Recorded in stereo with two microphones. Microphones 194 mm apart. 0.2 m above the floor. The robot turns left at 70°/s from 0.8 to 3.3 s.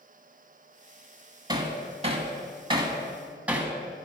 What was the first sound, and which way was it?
Hammering, 20° right (ahead or behind).